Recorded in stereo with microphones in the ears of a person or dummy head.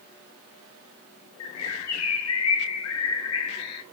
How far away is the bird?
About 0.9 m.